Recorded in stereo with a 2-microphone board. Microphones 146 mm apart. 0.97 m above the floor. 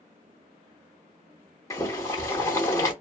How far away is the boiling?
About 0.7 m.